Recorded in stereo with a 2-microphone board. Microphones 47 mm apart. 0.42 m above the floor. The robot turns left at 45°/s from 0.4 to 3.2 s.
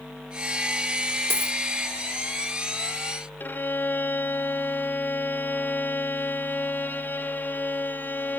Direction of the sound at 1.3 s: 60° right (ahead or behind).